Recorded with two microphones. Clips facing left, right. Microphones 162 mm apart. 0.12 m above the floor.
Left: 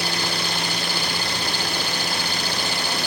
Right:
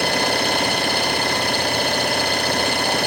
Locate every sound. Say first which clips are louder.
0.0 s an engine running: right 7 dB; 60° right (ahead or behind)